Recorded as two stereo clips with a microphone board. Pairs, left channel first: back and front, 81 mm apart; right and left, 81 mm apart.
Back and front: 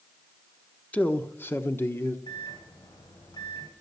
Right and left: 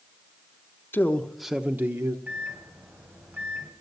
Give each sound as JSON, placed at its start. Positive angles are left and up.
{"t": 0.9, "sound": "a man speaking", "azimuth_deg": -125, "distance_m": 0.8}
{"t": 2.3, "sound": "a microwave", "azimuth_deg": 160, "distance_m": 2.5}